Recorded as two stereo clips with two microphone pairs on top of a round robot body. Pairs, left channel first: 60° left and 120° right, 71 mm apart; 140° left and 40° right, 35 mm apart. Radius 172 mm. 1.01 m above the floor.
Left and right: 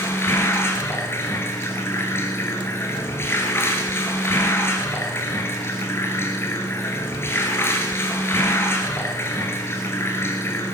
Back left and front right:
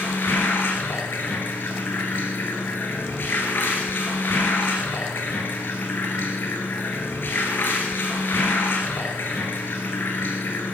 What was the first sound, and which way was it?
Running water, 120° left.